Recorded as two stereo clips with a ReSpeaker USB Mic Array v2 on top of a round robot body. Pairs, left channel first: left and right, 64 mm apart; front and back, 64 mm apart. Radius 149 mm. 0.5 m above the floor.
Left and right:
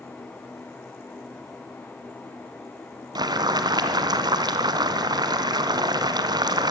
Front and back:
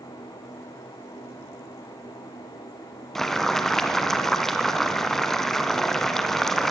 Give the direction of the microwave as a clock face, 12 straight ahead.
No microwave in this recording.